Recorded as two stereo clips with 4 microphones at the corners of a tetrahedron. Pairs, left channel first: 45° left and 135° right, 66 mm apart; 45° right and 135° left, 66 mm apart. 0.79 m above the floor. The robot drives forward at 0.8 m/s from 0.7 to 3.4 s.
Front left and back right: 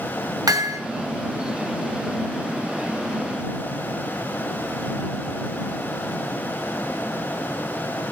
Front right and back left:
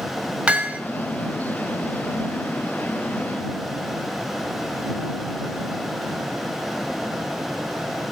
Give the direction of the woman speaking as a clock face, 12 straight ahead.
No woman speaking in this recording.